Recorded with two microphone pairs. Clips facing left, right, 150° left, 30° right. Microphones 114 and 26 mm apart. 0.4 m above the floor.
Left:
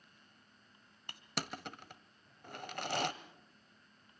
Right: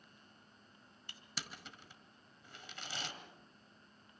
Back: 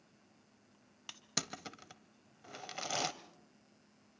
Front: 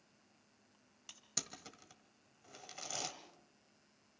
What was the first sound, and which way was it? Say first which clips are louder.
Crushing: left 8 dB, back 6 dB; 100° left.